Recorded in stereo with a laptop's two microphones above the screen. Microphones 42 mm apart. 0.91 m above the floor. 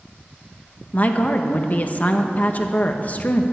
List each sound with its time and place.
0.9 s a woman speaking: 35° left (ahead or behind), 1.0 m